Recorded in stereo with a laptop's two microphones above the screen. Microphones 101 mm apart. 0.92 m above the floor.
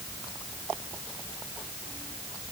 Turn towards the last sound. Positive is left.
No sound to turn to.